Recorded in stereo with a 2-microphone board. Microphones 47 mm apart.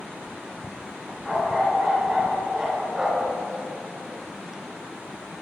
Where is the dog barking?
10° left (ahead or behind), 6.5 m; by 3.3 s 15° right (ahead or behind), 6.5 m.